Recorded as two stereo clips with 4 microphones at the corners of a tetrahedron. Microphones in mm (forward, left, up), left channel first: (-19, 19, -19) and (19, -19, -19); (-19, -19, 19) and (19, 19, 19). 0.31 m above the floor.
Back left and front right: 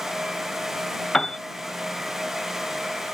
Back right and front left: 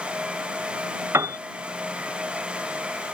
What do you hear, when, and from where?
1.1 s a piano: 60° left